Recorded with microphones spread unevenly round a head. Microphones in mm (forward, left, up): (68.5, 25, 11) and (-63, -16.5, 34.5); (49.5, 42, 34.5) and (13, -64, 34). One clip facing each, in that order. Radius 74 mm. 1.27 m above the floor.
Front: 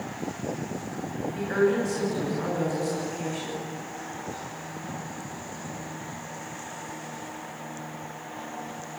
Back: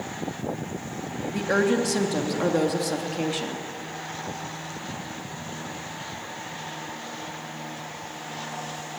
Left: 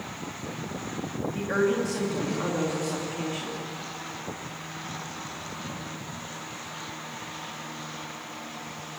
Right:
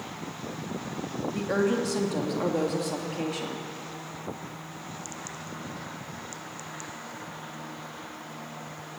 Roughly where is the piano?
No piano in this recording.